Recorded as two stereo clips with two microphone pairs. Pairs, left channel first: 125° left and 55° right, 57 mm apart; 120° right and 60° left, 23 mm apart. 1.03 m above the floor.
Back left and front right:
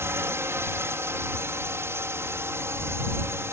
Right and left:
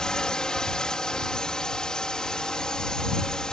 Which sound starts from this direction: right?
A drone, at 0.0 s.